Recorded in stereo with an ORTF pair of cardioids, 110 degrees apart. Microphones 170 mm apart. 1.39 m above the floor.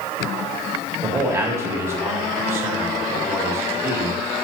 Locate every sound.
1.0 s a man speaking: 15° right, 2.5 m